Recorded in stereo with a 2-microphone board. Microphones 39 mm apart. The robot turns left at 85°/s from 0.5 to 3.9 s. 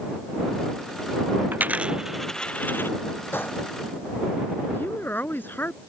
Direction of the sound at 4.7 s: 60° left (ahead or behind).